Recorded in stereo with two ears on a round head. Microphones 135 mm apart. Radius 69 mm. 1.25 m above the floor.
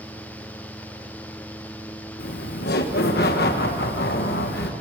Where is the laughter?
65° left (ahead or behind), 1.1 m.